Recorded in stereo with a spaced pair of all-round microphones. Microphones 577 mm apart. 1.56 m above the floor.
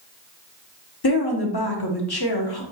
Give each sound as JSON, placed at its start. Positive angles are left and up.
{"t": 1.0, "sound": "a woman speaking", "side_deg": 40, "distance_m": 0.9}